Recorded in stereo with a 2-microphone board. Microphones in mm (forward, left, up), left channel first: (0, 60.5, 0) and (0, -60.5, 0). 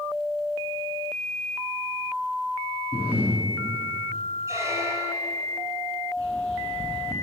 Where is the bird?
35° right (ahead or behind), 2 m.